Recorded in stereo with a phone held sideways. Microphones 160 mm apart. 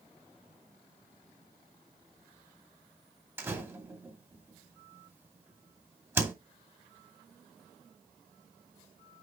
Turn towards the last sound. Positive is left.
turn(degrees=-15)  # may be behind; listen again after turning